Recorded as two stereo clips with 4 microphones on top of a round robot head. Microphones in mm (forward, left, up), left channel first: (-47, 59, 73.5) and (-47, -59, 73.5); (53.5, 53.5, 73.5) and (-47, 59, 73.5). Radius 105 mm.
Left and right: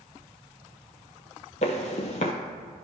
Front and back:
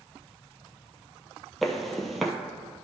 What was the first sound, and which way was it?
Footsteps, 85° left.